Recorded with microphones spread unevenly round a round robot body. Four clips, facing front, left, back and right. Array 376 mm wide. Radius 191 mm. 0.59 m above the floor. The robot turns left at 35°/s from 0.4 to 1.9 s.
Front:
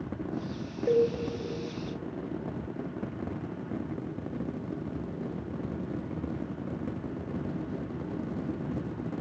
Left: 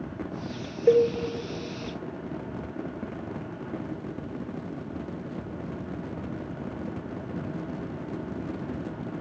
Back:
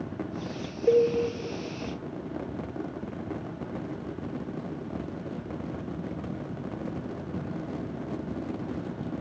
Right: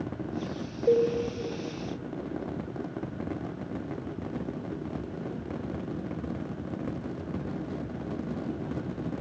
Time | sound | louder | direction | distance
0.9 | a cowbell | left 3 dB, back 3 dB | 85° left | 1.5 m